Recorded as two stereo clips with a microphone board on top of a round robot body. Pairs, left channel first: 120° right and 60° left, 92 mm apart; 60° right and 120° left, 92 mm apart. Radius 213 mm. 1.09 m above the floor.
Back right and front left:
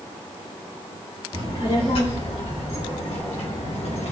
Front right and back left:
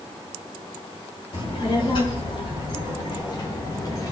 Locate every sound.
1.3 s a child speaking: 95° right, 3.5 m; by 4.1 s 115° right, 2.5 m